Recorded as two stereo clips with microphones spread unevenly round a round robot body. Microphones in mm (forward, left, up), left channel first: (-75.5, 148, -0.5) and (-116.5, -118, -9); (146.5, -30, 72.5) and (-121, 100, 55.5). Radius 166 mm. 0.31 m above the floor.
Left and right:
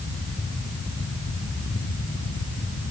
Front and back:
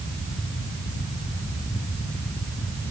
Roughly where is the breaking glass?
I don't hear breaking glass.